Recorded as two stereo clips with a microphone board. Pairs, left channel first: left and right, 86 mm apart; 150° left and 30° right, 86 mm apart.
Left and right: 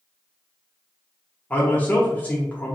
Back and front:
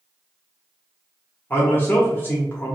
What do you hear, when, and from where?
1.5 s a man speaking: 130° left, 0.8 m